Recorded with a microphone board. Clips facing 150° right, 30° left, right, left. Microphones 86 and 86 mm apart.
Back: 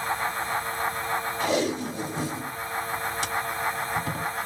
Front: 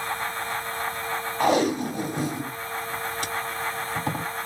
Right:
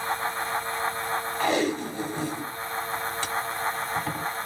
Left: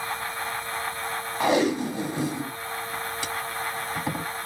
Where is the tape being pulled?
20° left, 1.5 m.